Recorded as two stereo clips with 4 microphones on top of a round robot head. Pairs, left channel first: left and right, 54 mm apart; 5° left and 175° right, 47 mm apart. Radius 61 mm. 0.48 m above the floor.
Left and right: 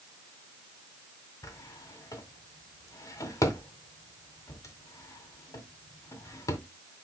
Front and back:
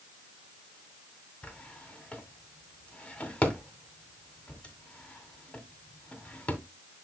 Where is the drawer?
70° left, 2 m.